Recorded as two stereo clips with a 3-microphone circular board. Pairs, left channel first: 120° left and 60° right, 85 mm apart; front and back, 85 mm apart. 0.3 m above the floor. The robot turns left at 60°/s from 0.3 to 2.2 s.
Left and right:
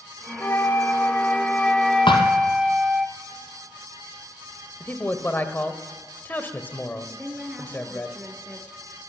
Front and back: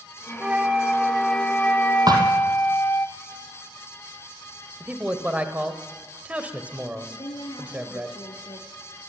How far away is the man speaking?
About 1.5 m.